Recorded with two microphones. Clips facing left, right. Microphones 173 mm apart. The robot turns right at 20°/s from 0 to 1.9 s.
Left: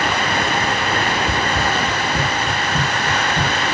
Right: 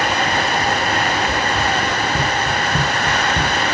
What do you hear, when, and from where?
1.3 s running footsteps: 35° left (ahead or behind), 1.1 m; by 3.6 s 55° right (ahead or behind), 1.3 m